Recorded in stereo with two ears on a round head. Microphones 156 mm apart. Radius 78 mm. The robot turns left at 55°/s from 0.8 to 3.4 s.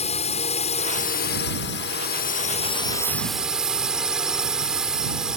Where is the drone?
140° left; by 5.4 s 5° right.